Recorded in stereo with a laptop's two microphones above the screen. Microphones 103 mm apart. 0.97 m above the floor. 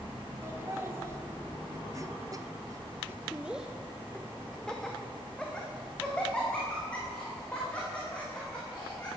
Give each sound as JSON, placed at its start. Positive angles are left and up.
{"t": 0.4, "sound": "laughter", "side_deg": -25, "distance_m": 1.6}